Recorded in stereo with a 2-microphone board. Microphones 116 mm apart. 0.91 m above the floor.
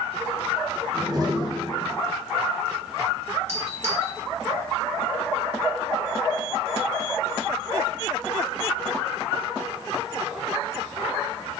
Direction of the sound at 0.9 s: 35° right (ahead or behind).